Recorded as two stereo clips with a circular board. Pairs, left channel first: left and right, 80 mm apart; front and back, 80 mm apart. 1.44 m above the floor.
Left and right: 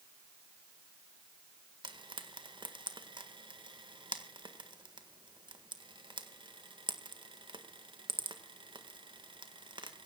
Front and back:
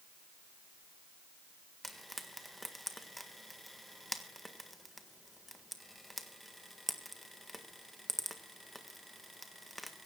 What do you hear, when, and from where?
1.8 s frying: 90° right, 1.7 m